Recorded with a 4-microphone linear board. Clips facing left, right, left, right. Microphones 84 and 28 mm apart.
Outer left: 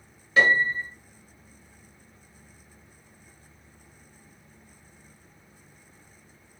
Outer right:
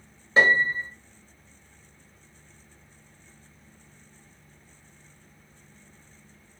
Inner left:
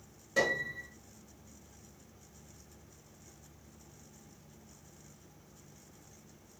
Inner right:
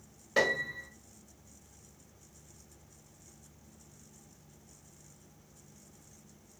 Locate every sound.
0.4 s a piano: 30° right (ahead or behind), 1.4 m